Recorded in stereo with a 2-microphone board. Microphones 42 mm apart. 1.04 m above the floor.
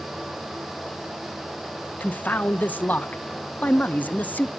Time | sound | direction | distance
2.0 | a man speaking | 40° left (ahead or behind) | 0.6 m